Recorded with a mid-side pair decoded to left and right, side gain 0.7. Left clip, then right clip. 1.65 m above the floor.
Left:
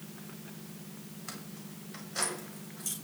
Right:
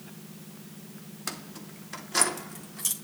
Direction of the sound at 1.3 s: 70° right.